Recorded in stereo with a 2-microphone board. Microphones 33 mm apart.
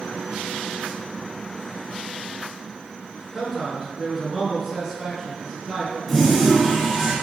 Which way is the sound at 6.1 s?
10° left (ahead or behind).